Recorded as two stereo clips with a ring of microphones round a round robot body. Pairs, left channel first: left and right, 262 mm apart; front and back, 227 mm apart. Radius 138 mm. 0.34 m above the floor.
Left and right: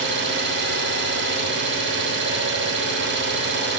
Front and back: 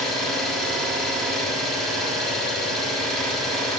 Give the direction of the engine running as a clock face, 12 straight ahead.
3 o'clock.